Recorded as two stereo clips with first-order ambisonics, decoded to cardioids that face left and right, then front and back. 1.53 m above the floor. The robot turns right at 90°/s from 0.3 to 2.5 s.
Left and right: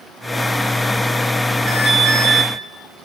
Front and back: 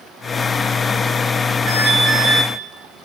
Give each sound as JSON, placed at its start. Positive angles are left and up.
{"t": 1.7, "sound": "an alarm", "azimuth_deg": -150, "distance_m": 4.0}